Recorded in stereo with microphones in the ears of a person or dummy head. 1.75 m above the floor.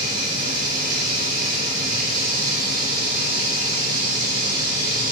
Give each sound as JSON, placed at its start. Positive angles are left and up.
{"t": 0.0, "sound": "running water", "side_deg": -50, "distance_m": 2.5}